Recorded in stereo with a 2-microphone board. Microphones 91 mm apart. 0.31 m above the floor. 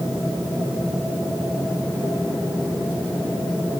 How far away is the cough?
I don't hear a cough.